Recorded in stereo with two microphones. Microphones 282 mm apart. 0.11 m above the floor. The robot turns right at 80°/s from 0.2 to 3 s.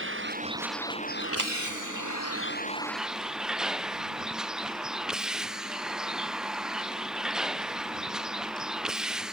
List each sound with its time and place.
0.0 s a vehicle: 40° right; by 9.3 s straight behind
1.4 s a clap: 80° right; by 1.5 s 85° right